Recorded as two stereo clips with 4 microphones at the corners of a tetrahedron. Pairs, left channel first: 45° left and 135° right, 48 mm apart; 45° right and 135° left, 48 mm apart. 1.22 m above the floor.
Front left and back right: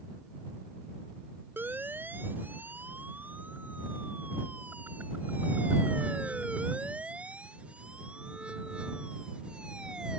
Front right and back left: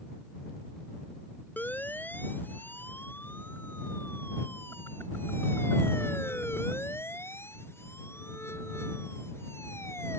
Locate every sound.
1.6 s a siren: 90° right; by 10.2 s 65° right